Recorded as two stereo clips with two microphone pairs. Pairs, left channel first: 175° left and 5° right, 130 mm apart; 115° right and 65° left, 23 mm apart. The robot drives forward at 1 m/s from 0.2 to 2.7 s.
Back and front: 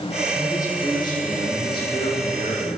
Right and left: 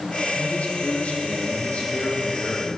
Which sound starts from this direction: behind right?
A man speaking, at 0.3 s.